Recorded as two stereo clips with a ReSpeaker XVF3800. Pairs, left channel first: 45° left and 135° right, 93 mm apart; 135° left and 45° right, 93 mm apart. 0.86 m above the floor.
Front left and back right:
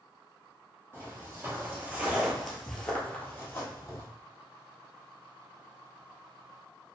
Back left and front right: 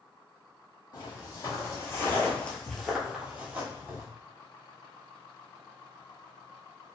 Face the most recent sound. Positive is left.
turn(degrees=5)